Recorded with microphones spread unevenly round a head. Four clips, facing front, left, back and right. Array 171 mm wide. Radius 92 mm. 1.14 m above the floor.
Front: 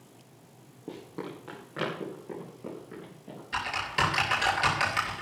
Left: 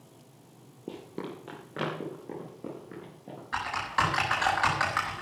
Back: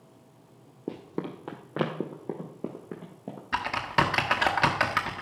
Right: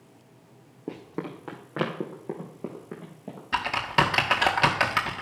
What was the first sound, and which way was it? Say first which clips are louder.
Running footsteps: right 3 dB, back 4 dB; 155° right.